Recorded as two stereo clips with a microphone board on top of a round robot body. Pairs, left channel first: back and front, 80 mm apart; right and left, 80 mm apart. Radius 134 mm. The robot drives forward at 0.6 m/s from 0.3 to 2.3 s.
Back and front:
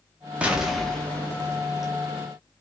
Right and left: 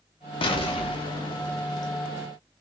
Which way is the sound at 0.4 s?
75° right.